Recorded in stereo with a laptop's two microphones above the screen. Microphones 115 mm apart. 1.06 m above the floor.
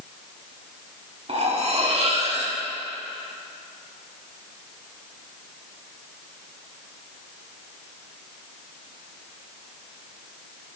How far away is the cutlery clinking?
About 1.1 m.